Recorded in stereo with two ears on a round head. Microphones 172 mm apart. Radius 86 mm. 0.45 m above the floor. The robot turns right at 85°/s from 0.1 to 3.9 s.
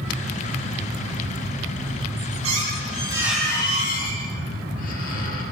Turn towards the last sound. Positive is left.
turn(degrees=45)